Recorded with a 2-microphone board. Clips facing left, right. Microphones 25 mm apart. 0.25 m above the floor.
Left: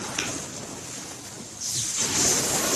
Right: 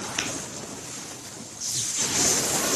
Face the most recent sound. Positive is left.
turn(degrees=-10)  # may be behind; listen again after turning